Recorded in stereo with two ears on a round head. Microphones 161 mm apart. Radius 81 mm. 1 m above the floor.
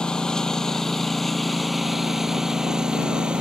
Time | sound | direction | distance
0.0 | a lawn mower | 5° left (ahead or behind) | ?